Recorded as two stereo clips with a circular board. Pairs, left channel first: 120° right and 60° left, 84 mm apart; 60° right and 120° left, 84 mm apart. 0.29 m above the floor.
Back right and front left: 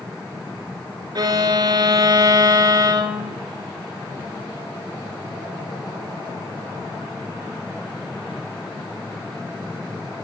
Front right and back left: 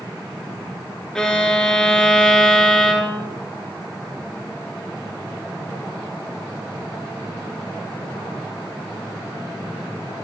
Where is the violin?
25° left, 1.2 m.